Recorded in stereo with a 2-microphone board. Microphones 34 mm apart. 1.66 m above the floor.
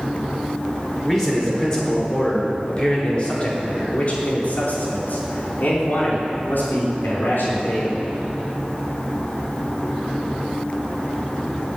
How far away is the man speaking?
About 5 m.